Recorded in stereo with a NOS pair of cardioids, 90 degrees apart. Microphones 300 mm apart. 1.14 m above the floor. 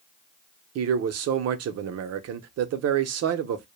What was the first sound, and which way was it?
A man speaking, 55° right.